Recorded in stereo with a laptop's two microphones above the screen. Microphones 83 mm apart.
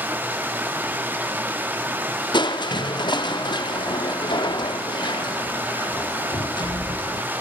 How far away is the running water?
About 1.5 m.